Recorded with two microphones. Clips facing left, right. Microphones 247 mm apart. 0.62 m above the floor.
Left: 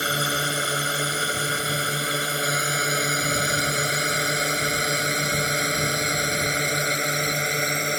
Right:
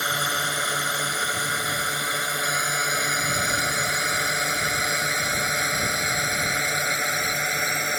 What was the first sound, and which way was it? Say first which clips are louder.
A drone: left 4 dB; 30° left (ahead or behind).